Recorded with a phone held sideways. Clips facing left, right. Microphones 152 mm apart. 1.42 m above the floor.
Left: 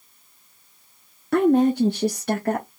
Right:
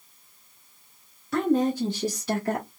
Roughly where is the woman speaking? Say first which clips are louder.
Left 6 dB; left.